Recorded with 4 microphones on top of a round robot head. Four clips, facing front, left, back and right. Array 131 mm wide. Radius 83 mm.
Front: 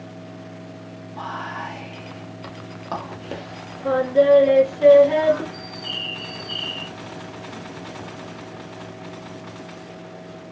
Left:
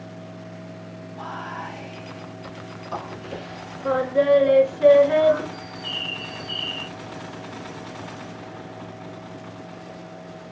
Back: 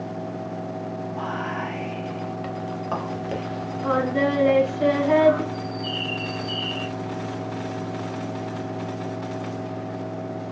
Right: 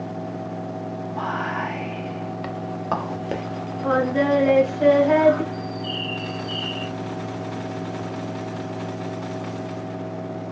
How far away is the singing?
About 2 m.